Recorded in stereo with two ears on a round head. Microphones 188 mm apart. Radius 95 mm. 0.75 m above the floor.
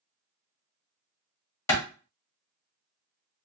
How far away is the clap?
About 1.2 m.